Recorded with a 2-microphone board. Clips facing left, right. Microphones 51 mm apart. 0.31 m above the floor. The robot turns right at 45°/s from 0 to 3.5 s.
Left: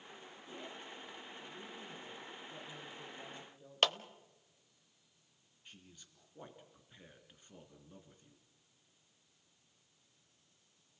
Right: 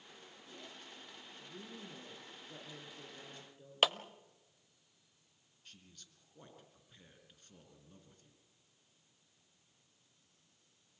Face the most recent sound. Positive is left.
turn(degrees=15)  # may be behind; listen again after turning